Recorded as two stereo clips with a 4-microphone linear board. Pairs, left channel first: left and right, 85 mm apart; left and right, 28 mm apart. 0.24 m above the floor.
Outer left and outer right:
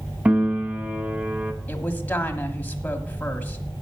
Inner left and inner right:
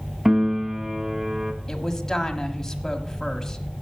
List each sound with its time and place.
0.2 s a piano: 20° right (ahead or behind), 0.7 m
1.7 s a woman speaking: 20° left (ahead or behind), 1.1 m